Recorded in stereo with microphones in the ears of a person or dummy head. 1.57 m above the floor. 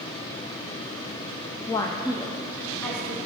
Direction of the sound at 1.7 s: 25° left (ahead or behind).